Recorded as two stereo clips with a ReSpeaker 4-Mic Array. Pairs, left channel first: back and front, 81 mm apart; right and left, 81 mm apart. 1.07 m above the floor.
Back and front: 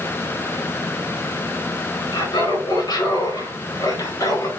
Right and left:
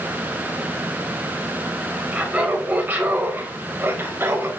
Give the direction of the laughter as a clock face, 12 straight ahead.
6 o'clock.